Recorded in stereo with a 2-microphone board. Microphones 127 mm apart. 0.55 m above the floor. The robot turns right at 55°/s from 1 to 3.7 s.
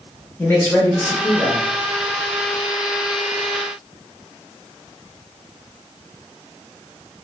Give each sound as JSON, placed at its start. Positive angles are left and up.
{"t": 0.4, "sound": "a man speaking", "side_deg": 15, "distance_m": 0.9}